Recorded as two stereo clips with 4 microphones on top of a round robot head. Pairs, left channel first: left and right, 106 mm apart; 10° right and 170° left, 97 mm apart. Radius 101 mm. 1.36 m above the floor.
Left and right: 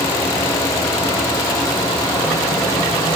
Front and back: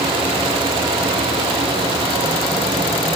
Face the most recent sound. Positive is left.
No sound to turn to.